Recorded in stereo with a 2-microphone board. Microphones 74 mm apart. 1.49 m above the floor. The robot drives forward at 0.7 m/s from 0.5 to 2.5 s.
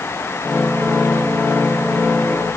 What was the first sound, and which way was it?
Only background noise.